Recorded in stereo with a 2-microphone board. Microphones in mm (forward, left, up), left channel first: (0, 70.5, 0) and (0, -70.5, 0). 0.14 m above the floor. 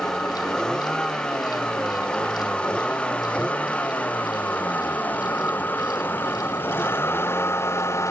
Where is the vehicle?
5° left (ahead or behind); by 8.1 s 20° left (ahead or behind).